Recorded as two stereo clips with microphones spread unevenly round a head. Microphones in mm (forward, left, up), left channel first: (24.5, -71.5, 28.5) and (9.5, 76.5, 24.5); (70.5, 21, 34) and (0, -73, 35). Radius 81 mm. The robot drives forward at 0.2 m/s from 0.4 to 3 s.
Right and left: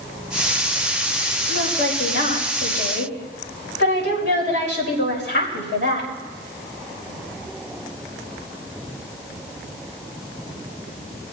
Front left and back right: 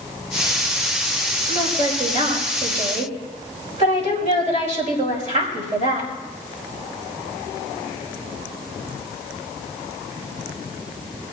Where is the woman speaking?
100° right, 5 m; by 6.1 s 105° right, 5 m.